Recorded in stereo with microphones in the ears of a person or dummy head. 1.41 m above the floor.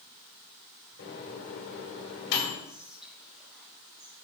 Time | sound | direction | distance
1.0 | a microwave | 70° left (ahead or behind) | 3 m
2.6 | whispering | 5° right (ahead or behind) | 1.2 m